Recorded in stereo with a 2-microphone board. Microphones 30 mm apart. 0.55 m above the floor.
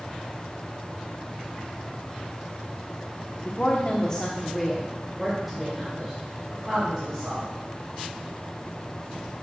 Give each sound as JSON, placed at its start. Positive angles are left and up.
{"t": 3.5, "sound": "a woman speaking", "side_deg": 40, "distance_m": 0.9}